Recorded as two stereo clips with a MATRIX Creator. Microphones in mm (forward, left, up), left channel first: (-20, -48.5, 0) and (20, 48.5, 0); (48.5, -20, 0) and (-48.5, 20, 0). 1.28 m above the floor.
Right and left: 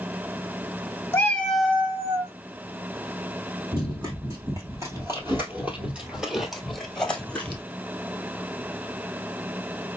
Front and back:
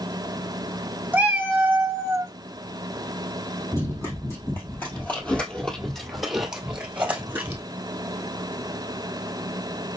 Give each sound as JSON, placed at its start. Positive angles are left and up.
{"t": 1.1, "sound": "a cat meowing", "azimuth_deg": -150, "distance_m": 0.9}
{"t": 3.7, "sound": "running footsteps", "azimuth_deg": 30, "distance_m": 1.9}